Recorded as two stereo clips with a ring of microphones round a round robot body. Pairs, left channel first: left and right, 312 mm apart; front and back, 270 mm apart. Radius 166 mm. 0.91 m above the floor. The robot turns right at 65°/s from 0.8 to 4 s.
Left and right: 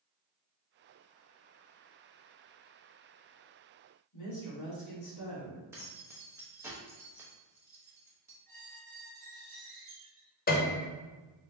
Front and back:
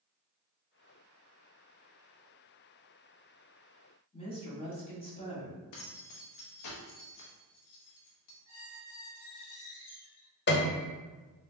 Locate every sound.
4.1 s a woman speaking: 70° left, 1.9 m
5.7 s keys jangling: 10° right, 1.0 m
8.5 s a squeak: 20° right, 1.6 m
10.5 s a piano: 40° left, 0.6 m